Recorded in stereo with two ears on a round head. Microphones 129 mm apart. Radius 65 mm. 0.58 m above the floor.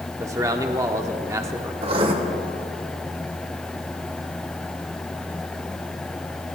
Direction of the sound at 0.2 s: 20° right (ahead or behind).